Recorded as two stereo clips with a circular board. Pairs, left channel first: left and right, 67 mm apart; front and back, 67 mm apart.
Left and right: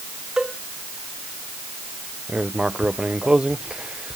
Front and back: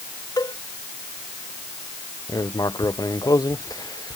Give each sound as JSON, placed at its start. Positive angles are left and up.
{"t": 0.4, "sound": "a cowbell", "azimuth_deg": -10}
{"t": 2.3, "sound": "writing", "azimuth_deg": -15}